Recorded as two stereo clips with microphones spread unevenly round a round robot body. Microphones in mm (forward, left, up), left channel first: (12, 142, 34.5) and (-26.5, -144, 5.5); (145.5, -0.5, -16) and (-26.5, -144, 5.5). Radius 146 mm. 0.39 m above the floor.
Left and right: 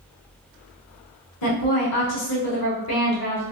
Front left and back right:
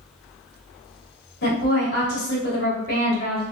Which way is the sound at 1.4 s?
60° left.